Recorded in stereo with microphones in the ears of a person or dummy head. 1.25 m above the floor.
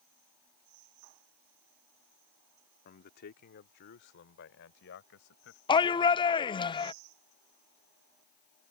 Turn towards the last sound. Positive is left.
turn(degrees=20)  # may be behind; listen again after turning